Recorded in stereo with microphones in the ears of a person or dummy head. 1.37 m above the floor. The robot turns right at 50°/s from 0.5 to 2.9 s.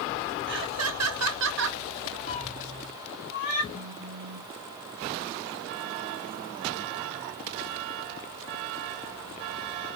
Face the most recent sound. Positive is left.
turn(degrees=-35)  # may be behind; listen again after turning